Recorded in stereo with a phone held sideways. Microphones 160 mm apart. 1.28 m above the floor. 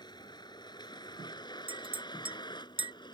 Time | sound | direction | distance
0.0 | a vehicle | 25° left (ahead or behind) | ?
1.7 | a clink | 35° right (ahead or behind) | ?